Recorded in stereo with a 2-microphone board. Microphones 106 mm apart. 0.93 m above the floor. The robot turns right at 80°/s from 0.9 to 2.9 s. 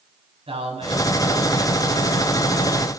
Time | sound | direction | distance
0.5 | a man speaking | 65° right | 8 m